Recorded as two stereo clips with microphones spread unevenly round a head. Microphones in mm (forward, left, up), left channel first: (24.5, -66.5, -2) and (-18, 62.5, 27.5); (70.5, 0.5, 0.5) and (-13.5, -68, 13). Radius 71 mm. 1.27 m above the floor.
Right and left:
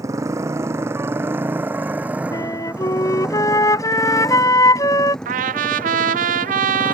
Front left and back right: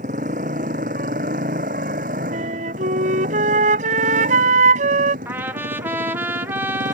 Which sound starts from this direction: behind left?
A trumpet, at 5.2 s.